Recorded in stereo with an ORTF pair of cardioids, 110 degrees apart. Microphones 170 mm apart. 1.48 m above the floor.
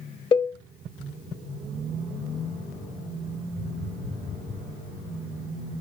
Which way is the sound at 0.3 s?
30° left.